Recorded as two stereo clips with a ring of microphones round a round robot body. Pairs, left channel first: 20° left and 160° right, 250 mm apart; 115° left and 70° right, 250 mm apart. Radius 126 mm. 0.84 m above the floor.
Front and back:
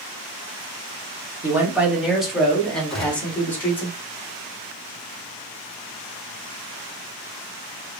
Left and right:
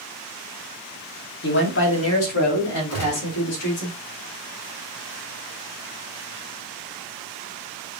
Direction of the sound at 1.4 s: 125° left.